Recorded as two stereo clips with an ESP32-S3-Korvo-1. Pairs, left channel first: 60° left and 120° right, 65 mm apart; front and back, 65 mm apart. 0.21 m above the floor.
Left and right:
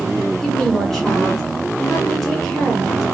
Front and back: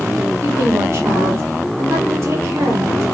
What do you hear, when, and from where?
0.4 s a woman speaking: 145° left, 2 m